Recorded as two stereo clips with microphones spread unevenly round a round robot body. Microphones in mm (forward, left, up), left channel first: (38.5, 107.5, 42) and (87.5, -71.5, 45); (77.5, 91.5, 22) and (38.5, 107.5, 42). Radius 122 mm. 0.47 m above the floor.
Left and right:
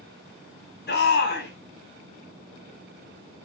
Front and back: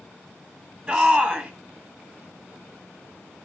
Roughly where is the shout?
Left.